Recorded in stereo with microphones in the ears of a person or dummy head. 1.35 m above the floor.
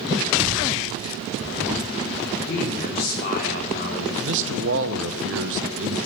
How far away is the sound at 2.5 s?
About 3 m.